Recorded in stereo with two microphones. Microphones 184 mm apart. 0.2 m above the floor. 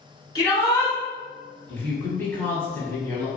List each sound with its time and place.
0.3 s a shout: 25° left (ahead or behind), 1.6 m
1.7 s a woman speaking: 10° left (ahead or behind), 1.2 m